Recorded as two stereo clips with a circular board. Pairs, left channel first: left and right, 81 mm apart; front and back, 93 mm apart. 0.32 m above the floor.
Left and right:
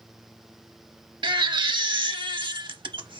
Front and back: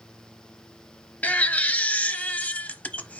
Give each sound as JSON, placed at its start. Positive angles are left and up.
{"t": 1.2, "sound": "a baby crying", "azimuth_deg": -75, "distance_m": 0.6}